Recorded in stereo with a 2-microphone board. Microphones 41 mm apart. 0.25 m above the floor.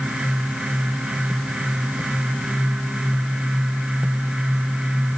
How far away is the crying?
I don't hear crying.